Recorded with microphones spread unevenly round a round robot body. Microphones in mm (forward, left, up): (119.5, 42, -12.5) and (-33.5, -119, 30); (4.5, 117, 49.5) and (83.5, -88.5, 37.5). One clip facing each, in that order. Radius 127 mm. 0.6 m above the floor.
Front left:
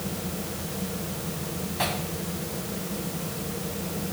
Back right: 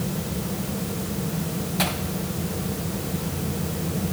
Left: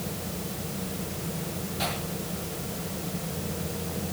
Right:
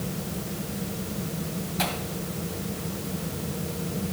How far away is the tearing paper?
About 2 m.